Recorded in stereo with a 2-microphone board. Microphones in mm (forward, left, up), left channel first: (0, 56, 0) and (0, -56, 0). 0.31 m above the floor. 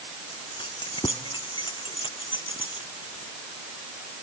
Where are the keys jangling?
45° left (ahead or behind).